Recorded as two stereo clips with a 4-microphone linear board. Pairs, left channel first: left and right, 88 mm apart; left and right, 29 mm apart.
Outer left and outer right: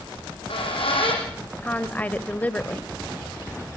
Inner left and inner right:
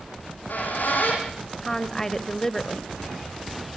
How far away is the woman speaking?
About 1.3 m.